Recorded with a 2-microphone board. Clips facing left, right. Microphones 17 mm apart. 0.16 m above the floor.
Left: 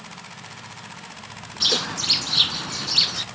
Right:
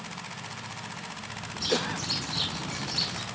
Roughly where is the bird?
Left.